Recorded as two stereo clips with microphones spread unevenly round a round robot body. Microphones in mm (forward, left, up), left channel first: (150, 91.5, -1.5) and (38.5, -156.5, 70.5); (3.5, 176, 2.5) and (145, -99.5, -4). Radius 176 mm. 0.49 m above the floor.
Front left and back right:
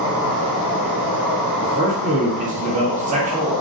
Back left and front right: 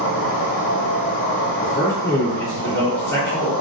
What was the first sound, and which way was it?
An insect, 70° left.